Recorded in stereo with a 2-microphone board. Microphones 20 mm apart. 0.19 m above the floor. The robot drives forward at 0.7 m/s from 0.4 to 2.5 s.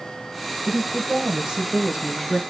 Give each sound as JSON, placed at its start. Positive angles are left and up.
{"t": 0.7, "sound": "a woman speaking", "side_deg": -40, "distance_m": 3.0}